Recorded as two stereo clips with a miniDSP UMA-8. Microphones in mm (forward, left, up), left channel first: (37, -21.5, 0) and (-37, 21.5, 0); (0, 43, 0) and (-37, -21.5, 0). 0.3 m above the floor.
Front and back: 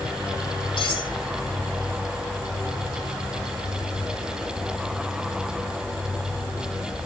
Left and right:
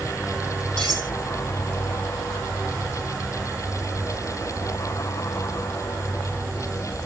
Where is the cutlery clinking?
20° right, 7 m.